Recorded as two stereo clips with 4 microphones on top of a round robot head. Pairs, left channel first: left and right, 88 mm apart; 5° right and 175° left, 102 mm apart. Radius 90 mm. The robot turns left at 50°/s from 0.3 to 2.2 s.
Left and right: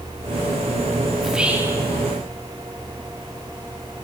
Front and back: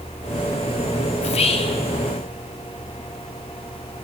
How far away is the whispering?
About 2.5 m.